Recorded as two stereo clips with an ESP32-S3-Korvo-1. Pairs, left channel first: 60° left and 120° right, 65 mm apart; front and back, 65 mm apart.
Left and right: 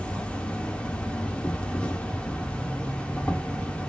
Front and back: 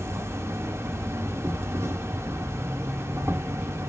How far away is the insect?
About 0.9 m.